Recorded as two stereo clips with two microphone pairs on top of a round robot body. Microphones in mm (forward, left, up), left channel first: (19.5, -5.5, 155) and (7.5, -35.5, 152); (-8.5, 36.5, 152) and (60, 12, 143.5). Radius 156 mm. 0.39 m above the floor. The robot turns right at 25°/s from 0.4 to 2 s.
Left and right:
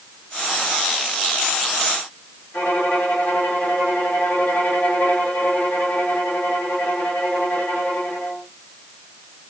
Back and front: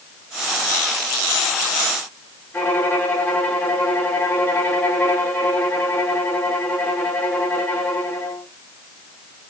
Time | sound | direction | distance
2.5 | a violin | 95° left | 2.5 m